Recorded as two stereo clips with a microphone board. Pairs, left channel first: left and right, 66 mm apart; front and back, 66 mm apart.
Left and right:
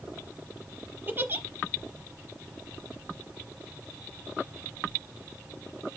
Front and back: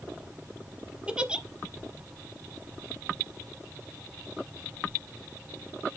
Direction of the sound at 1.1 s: 120° right.